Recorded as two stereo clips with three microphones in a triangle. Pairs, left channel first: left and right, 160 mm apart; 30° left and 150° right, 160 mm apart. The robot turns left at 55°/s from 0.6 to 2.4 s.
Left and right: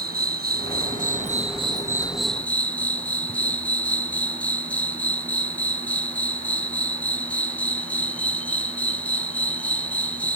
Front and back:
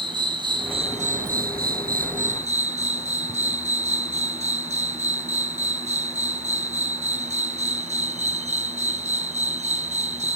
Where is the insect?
90° right; by 10.4 s 170° left.